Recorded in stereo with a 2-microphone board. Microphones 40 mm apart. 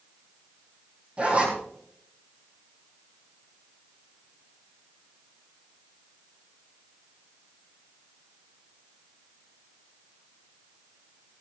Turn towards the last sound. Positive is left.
turn(degrees=-30)  # may be behind; listen again after turning